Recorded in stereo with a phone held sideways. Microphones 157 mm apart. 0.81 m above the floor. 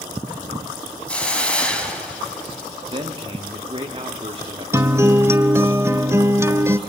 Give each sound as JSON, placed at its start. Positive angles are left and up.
{"t": 1.1, "sound": "a hiss", "side_deg": 10, "distance_m": 1.8}
{"t": 2.9, "sound": "a man speaking", "side_deg": -35, "distance_m": 1.7}
{"t": 4.7, "sound": "a guitar", "side_deg": -15, "distance_m": 0.6}